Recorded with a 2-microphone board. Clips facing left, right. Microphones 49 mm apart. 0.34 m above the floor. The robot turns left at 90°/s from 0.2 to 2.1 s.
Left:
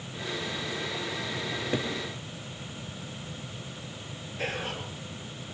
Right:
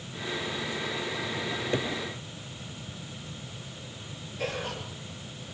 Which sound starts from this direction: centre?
A cupboard door, at 1.5 s.